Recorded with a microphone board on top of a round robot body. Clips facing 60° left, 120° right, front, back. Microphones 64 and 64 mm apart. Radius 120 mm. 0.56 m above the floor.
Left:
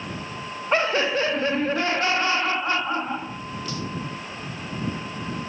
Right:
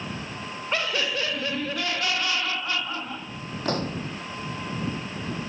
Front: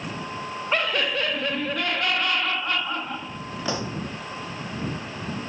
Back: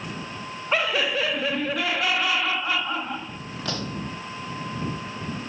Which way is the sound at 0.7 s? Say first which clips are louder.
Left 6 dB, back 1 dB; 95° left.